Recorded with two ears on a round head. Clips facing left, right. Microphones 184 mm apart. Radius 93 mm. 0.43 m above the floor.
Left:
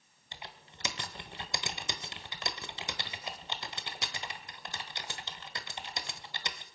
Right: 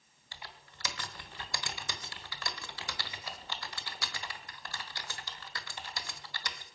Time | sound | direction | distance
0.3 | typing on a keyboard | 20° left (ahead or behind) | 1.1 m